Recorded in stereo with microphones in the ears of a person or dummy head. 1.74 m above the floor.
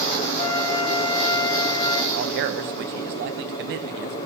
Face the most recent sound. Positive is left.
turn(degrees=-65)  # may be behind; listen again after turning